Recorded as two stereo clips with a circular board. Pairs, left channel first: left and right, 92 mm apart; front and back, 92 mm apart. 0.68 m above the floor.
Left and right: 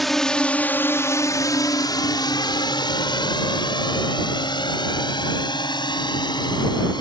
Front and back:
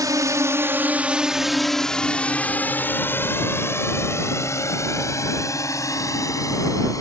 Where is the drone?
Straight behind; by 7.0 s 55° left.